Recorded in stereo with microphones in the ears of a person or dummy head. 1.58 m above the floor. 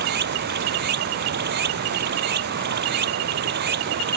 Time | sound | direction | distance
0.0 | running water | 55° right (ahead or behind) | ?